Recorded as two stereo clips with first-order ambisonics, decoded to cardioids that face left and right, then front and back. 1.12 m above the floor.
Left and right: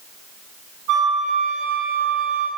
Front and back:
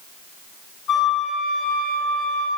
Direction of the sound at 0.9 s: 50° right.